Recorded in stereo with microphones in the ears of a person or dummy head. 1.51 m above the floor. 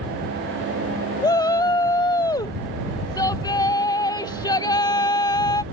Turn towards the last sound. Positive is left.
turn(degrees=20)  # may be behind; listen again after turning